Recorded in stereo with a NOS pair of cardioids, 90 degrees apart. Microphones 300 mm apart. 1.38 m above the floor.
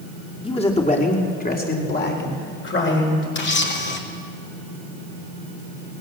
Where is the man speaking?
20° left, 3.5 m; by 3.2 s 40° left, 6 m.